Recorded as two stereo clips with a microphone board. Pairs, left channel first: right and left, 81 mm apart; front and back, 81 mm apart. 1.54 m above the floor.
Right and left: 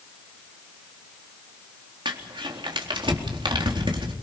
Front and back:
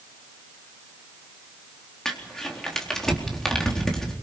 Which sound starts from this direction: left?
Crumpling, at 2.0 s.